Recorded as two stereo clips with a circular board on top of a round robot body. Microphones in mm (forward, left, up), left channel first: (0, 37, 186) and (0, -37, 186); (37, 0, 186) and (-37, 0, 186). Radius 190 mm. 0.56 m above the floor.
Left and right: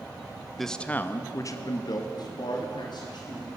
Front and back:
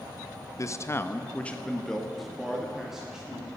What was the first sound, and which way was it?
A man speaking, straight ahead.